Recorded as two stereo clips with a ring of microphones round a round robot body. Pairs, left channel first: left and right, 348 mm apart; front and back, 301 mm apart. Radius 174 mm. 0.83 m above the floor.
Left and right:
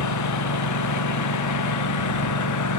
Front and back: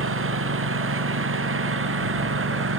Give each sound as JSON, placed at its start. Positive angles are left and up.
{"t": 0.0, "sound": "a lawn mower", "azimuth_deg": 135}